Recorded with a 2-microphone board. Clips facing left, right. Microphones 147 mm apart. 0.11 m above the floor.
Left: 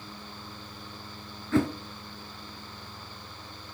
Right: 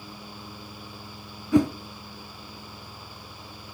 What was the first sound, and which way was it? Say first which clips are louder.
A whoosh: right 5 dB; 15° right (ahead or behind).